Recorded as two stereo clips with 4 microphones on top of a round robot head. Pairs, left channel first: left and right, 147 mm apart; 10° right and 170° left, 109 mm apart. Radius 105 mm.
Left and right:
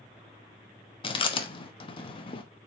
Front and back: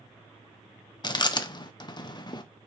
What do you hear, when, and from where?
1.0 s chewing: 40° left, 1.0 m